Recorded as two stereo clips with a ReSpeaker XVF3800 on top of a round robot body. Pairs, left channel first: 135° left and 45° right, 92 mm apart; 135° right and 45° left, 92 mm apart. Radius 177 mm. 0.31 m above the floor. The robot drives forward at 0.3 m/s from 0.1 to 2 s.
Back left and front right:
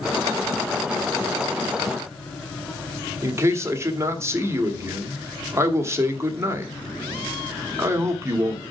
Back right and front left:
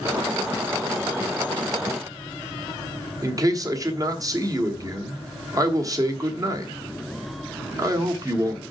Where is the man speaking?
5° left, 1.7 m.